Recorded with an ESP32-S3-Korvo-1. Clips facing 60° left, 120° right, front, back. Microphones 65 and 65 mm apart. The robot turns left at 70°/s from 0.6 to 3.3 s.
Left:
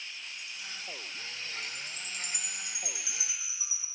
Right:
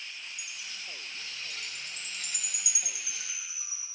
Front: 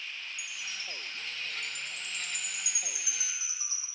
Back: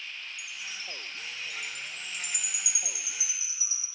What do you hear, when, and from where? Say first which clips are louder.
0.4 s a chime: even, even; 165° left, 1.0 m; by 3.9 s 25° right, 1.0 m